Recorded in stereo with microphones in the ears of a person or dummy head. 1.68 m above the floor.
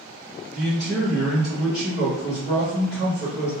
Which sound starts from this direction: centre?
A man speaking, at 0.5 s.